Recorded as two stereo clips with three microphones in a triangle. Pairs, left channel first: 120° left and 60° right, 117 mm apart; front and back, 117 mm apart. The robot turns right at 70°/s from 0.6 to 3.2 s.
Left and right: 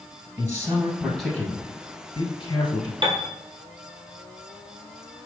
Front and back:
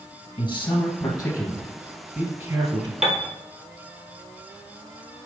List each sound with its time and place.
0.4 s a man speaking: 5° right, 1.5 m; by 2.9 s 160° left, 1.5 m
3.0 s a piano: 95° right, 0.9 m; by 3.3 s 85° right, 0.9 m